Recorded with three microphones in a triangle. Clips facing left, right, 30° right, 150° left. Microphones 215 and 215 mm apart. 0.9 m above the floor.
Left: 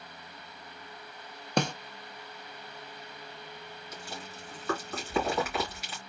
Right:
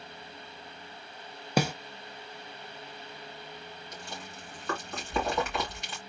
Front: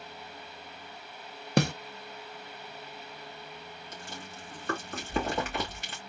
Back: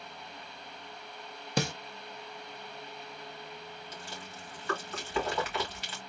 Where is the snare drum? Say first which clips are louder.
Right 1 dB, front 6 dB; 5° right, 0.6 m.